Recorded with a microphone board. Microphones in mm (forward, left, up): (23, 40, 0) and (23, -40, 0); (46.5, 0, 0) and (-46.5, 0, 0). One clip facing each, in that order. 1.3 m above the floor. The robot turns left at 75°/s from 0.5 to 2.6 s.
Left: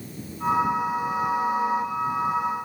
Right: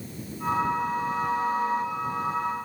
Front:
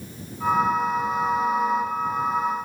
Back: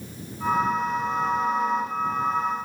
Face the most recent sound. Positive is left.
No sound to turn to.